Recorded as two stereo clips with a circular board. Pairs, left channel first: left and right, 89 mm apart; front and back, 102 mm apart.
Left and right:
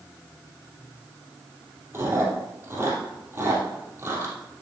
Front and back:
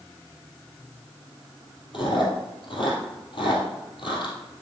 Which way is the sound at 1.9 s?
30° right.